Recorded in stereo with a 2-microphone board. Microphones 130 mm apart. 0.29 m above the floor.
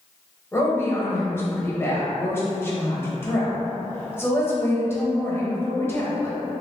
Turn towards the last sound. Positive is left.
turn(degrees=20)  # may be behind; listen again after turning